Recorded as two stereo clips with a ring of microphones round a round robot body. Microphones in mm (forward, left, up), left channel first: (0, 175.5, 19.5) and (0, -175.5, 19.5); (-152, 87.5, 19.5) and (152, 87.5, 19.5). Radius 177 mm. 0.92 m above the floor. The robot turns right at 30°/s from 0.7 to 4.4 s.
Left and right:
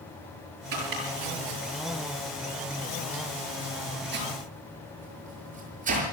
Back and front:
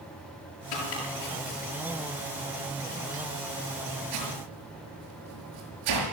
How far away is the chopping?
About 6.5 m.